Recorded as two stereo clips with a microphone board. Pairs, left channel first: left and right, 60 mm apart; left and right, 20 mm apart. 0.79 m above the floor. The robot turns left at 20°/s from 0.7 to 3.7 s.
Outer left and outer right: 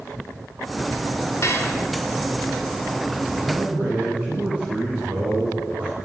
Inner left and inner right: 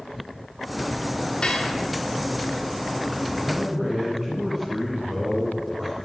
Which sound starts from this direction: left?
Dishes clattering, at 1.4 s.